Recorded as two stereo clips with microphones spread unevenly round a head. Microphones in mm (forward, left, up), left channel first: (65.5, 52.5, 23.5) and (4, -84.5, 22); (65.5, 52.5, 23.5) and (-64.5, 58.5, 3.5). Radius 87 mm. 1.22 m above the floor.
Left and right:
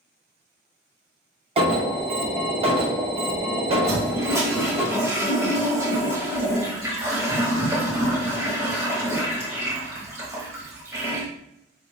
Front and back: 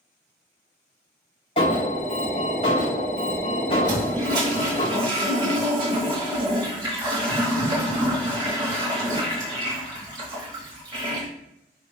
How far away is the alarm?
About 0.8 m.